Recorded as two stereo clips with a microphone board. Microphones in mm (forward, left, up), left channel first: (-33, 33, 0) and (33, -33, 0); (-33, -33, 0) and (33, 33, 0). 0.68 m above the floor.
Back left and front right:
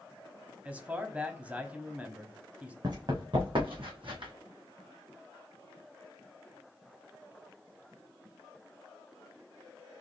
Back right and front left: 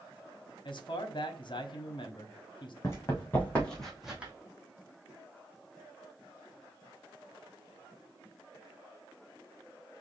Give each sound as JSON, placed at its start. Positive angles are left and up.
{"t": 0.7, "sound": "a man speaking", "azimuth_deg": -120, "distance_m": 0.9}
{"t": 2.8, "sound": "running footsteps", "azimuth_deg": -80, "distance_m": 2.0}